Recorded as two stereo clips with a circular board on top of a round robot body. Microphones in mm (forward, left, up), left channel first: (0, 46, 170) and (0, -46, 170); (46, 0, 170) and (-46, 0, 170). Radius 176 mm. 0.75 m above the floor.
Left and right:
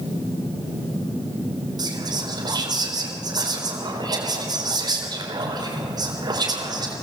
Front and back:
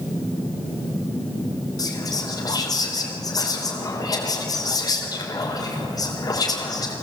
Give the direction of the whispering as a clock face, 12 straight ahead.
2 o'clock.